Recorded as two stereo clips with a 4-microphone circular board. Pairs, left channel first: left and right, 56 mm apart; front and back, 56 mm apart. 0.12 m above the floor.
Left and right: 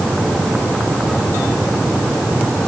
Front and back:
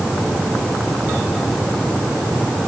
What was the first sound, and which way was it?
Only background noise.